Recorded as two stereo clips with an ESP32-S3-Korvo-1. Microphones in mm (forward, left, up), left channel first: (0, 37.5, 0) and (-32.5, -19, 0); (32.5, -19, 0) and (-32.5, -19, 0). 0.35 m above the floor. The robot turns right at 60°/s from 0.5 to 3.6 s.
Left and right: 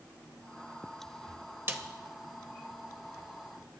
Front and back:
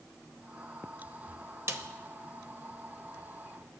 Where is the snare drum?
160° right, 0.8 m; by 1.8 s 150° right, 0.8 m.